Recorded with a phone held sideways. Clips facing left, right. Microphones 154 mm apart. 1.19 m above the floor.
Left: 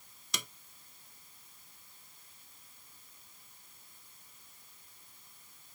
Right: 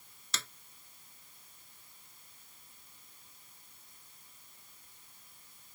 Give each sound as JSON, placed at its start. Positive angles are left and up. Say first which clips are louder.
{"t": 0.3, "sound": "a snare drum", "louder": "left 1 dB", "side_deg": 15}